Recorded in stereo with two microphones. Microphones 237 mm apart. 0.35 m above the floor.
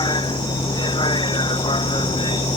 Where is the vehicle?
20° left (ahead or behind).